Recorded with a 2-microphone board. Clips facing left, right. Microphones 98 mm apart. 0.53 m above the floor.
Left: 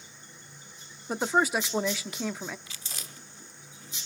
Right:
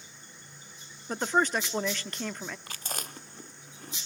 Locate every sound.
1.1 s a woman speaking: 5° left (ahead or behind), 0.6 m
2.7 s chewing: 55° right (ahead or behind), 0.9 m